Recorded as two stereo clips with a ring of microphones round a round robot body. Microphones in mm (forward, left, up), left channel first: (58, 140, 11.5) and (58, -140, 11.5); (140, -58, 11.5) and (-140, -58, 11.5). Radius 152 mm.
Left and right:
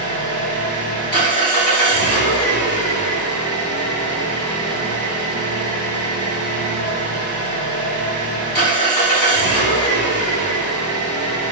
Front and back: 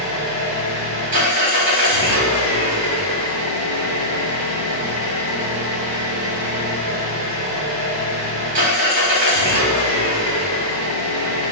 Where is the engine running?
165° left, 1.9 m.